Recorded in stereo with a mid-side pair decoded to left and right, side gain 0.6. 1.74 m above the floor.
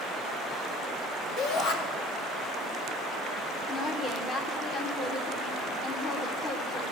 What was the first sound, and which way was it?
A shout, 65° left.